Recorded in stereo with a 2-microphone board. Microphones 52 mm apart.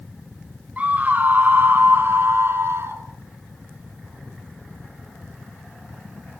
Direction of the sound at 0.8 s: 25° right (ahead or behind).